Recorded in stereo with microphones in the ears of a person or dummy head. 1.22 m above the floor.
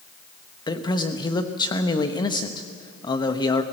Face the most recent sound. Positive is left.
turn(degrees=25)  # may be behind; listen again after turning